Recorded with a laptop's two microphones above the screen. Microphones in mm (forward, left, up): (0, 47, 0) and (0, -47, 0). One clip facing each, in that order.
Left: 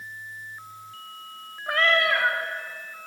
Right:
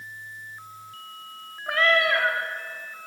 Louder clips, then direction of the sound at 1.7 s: Right 1 dB; centre (ahead or behind).